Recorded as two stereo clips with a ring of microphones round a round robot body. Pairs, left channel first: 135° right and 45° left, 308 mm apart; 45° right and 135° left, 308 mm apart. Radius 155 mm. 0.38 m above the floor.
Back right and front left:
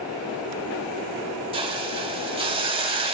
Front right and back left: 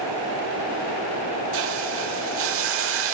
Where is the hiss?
110° left, 1.0 m.